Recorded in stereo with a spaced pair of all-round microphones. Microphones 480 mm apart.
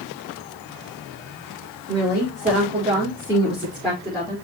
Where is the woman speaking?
25° right (ahead or behind), 4 m; by 4.3 s 5° left (ahead or behind), 4.5 m.